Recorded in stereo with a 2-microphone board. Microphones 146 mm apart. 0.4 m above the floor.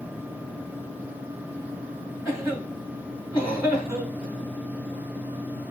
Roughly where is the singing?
I don't hear singing.